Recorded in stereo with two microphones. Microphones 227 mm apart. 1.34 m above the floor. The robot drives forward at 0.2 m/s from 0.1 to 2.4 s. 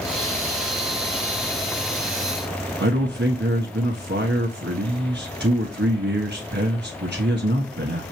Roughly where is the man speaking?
Right.